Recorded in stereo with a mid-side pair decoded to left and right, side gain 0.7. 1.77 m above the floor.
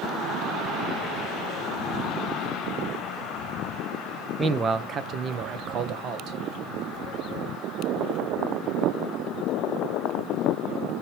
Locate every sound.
4.4 s a man speaking: 20° right, 0.9 m; by 6.4 s 50° right, 2.5 m